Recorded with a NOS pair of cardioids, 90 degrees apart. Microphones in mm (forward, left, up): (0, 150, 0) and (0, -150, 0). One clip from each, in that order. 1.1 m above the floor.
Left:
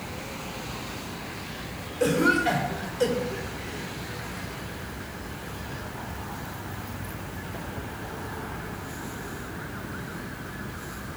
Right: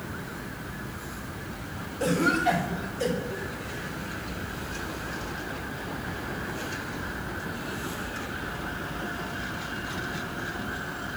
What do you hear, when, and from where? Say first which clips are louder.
2.0 s a cough: left 2 dB; 20° left, 3 m